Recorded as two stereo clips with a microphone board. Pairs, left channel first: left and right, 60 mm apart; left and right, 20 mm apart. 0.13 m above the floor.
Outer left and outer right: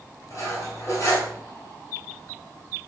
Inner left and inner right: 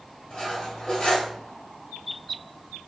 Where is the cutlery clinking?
55° left (ahead or behind), 1.6 m.